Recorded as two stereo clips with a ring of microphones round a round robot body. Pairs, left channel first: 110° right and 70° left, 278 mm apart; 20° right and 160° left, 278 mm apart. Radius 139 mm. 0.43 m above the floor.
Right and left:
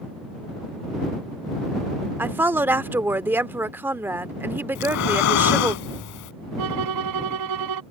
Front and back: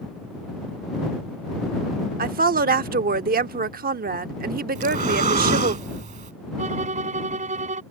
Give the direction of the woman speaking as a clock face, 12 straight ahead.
7 o'clock.